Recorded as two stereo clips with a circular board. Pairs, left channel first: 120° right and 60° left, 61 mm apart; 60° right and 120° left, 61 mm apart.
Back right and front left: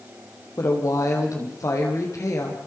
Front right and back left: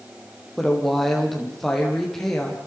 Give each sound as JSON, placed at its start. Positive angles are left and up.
{"t": 0.6, "sound": "a woman speaking", "azimuth_deg": -145, "distance_m": 5.5}